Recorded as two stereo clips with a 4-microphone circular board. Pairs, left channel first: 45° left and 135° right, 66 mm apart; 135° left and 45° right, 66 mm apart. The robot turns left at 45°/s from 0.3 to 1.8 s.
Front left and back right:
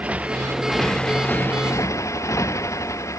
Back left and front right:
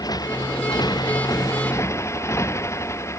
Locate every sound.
0.0 s a motorcycle: 155° left; by 3.2 s 90° left